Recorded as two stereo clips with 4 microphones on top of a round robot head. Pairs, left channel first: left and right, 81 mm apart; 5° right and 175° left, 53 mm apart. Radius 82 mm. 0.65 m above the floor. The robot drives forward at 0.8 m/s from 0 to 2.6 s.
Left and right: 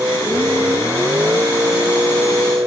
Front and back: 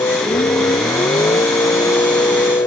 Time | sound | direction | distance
0.0 | a vehicle | 20° right | ?